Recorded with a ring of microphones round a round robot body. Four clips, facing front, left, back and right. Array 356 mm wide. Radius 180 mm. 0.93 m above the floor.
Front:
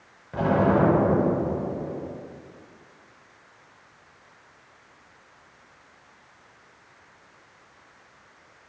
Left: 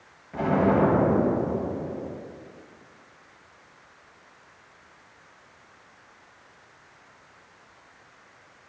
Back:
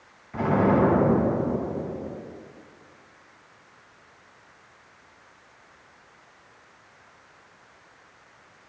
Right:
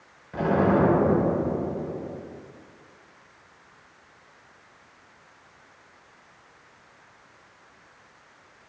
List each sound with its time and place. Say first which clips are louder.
0.3 s an explosion: even, even; 5° right, 4 m